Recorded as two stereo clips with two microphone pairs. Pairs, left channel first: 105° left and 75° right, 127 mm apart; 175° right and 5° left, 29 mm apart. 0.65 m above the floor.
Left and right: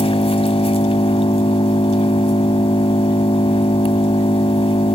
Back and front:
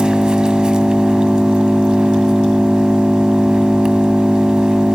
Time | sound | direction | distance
0.0 | an engine running | 65° left | 1.3 m